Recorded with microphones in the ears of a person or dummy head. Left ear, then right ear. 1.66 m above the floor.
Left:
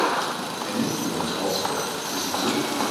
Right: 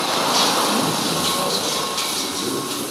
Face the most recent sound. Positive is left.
turn(degrees=-70)  # may be behind; listen again after turning